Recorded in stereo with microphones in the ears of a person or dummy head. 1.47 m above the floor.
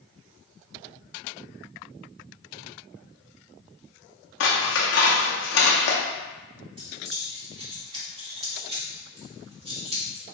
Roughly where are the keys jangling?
Right.